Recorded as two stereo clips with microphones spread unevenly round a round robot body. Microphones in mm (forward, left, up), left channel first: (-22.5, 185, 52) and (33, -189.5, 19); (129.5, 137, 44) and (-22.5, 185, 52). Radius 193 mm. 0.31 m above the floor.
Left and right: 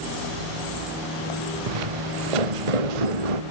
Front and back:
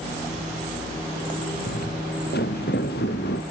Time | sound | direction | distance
1.7 | footsteps | 85° right | ?